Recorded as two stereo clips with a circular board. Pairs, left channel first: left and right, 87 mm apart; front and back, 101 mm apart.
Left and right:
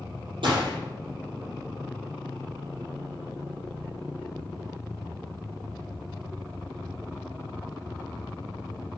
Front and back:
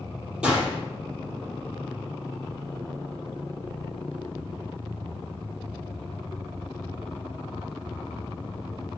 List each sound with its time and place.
0.4 s a gunshot: 100° right, 5 m